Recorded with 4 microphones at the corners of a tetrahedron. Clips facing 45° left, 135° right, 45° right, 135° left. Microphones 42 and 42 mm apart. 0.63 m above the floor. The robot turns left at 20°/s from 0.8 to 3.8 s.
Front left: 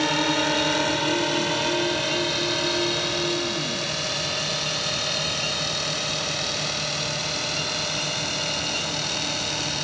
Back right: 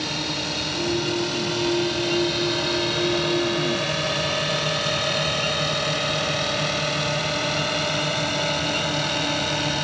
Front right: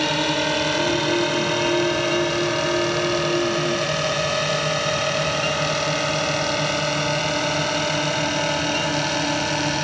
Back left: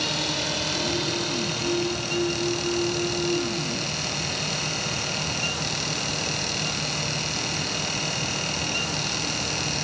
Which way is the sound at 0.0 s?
Straight ahead.